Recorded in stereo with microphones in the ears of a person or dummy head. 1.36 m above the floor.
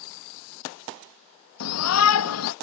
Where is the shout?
80° left.